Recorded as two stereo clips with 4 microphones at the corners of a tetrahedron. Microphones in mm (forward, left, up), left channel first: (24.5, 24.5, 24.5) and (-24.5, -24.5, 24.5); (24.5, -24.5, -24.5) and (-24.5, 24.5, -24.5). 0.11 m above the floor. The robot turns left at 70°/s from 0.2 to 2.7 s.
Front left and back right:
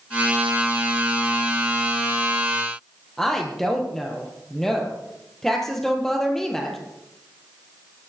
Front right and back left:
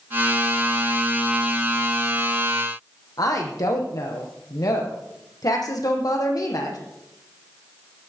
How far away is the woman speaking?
About 3.5 m.